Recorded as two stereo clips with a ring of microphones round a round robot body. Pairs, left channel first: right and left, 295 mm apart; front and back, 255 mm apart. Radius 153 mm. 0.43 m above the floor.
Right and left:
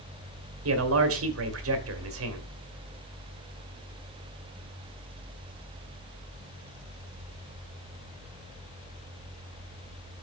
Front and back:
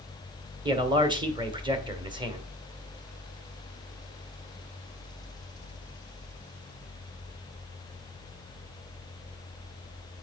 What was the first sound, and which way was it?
A man speaking, 115° left.